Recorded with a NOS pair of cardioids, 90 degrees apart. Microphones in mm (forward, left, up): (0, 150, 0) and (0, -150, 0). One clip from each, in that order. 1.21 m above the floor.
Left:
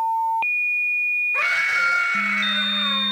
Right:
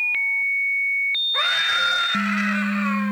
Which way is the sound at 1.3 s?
15° right.